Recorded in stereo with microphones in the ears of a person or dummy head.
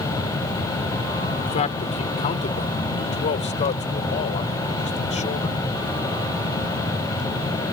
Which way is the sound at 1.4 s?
40° left (ahead or behind).